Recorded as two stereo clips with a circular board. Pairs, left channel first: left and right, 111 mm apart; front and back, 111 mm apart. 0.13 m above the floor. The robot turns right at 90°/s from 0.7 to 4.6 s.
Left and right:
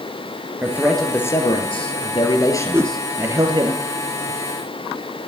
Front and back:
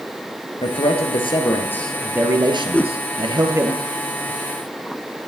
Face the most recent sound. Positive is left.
turn(degrees=100)